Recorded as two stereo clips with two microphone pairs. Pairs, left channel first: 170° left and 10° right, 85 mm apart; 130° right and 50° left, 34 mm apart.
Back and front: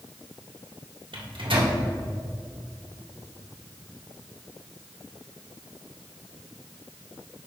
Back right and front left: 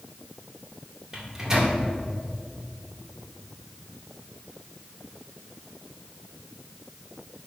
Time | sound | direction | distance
1.1 | a microwave | 20° right | 1.7 m